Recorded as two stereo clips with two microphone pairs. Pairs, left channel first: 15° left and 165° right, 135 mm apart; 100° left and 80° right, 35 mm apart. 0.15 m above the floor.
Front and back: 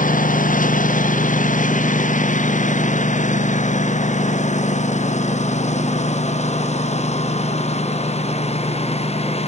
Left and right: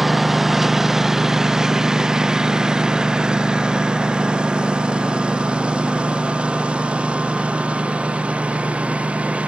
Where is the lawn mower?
5° left; by 9.5 s 25° right.